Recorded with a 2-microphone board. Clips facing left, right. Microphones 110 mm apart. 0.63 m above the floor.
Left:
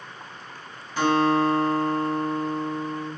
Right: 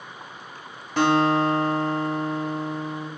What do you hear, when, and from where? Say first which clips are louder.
1.0 s a guitar: right 1 dB; 80° right, 1.1 m